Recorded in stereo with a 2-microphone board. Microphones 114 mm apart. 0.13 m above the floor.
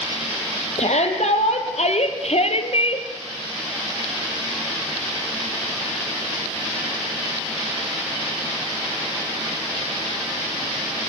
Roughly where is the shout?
Left.